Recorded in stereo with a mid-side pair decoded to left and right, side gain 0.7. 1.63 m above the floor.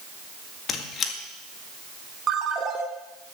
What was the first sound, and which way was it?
A squeak, 45° left.